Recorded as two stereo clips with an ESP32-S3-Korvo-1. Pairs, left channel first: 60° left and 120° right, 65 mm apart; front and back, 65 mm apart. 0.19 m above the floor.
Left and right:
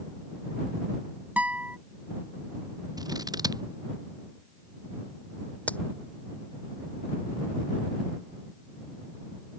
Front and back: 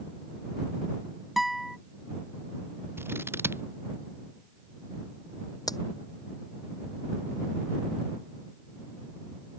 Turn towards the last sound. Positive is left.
turn(degrees=-5)